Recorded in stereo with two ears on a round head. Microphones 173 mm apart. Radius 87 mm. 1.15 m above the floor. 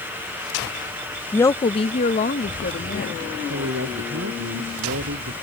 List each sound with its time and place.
1.3 s a woman speaking: 10° left (ahead or behind); by 3.2 s 50° left (ahead or behind)
3.3 s a woman speaking: 75° right (ahead or behind)